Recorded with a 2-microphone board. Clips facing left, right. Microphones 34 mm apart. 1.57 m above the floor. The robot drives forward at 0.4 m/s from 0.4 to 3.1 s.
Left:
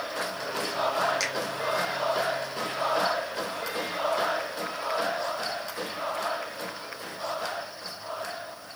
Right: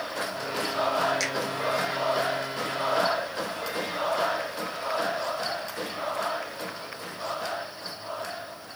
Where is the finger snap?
Centre (ahead or behind), 1.1 m.